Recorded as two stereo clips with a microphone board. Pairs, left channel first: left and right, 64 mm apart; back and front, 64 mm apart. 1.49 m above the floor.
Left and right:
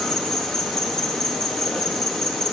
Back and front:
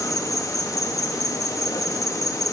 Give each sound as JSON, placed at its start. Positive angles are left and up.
{"t": 0.0, "sound": "an insect", "azimuth_deg": 170, "distance_m": 1.6}